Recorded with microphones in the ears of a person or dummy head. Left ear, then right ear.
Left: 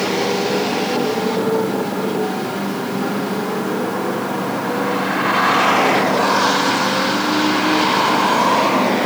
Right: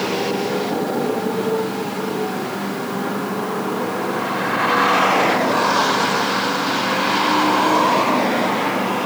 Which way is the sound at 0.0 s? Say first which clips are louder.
Left 3 dB; 5° left (ahead or behind).